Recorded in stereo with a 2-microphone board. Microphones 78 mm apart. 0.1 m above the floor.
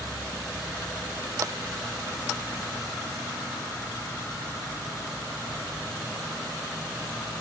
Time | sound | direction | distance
1.4 | tapping | 45° right (ahead or behind) | ?